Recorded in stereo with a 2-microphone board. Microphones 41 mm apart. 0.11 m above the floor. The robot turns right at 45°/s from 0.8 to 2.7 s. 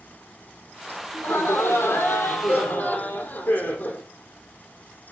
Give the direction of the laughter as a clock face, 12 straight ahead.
10 o'clock.